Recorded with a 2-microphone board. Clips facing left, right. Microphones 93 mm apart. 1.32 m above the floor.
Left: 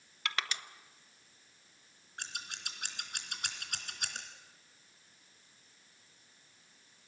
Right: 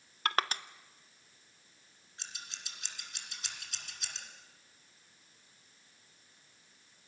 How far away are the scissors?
About 3 m.